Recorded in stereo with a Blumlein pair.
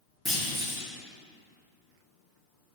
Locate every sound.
0.2 s a clunk: straight ahead, 1.5 m